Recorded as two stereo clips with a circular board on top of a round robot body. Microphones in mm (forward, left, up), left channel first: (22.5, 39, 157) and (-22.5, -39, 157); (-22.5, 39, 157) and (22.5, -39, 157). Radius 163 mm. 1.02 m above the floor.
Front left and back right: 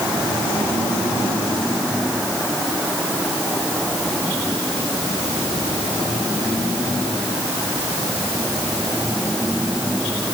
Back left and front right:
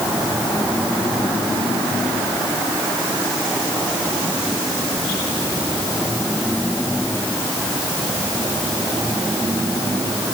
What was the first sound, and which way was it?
Only background noise.